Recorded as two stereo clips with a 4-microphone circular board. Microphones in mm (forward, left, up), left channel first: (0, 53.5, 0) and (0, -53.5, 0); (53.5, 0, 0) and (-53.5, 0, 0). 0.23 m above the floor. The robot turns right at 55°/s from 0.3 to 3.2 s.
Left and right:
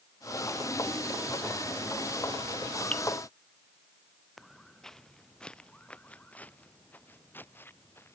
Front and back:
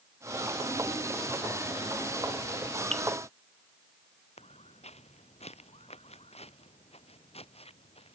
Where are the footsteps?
Straight ahead; by 8.2 s 20° left.